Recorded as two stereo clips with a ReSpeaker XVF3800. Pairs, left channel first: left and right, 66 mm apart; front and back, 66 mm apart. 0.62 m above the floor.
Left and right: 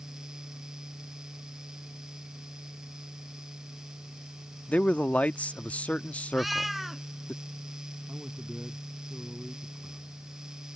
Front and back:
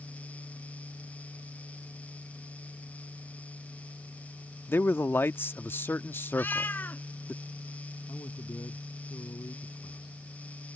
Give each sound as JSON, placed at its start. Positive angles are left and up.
{"t": 4.7, "sound": "a man speaking", "azimuth_deg": 30}
{"t": 6.3, "sound": "a cat meowing", "azimuth_deg": 0}
{"t": 8.1, "sound": "a man speaking", "azimuth_deg": -15}